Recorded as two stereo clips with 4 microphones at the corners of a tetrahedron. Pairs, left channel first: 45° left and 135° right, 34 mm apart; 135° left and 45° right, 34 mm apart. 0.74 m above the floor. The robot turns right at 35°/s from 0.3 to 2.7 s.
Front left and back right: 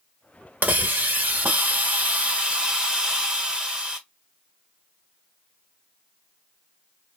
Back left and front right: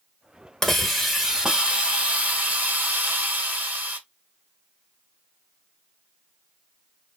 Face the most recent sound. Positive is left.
turn(degrees=-70)